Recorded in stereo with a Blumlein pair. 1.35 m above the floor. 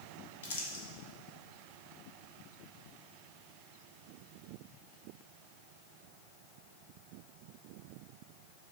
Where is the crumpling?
55° left, 1.4 m.